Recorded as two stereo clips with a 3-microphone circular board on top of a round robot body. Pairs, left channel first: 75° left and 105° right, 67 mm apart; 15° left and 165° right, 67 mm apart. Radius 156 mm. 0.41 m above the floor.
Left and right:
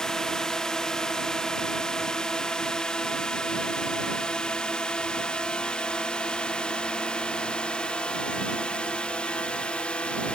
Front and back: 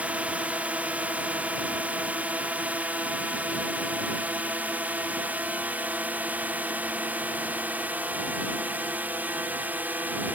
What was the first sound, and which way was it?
A drone, 150° left.